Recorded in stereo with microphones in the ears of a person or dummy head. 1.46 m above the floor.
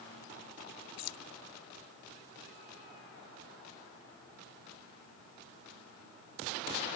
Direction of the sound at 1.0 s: 80° left.